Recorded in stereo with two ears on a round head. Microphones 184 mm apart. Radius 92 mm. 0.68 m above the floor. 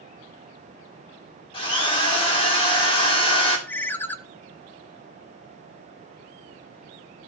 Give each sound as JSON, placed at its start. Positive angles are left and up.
{"t": 1.5, "sound": "a drill", "side_deg": 30, "distance_m": 2.0}
{"t": 3.7, "sound": "a ringtone", "side_deg": 10, "distance_m": 0.5}